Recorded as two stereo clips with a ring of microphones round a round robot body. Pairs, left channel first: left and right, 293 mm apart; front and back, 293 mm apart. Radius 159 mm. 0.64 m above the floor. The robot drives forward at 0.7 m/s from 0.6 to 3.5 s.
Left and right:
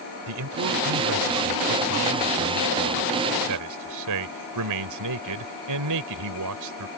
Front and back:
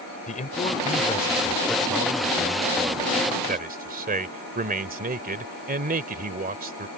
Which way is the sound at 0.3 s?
65° right.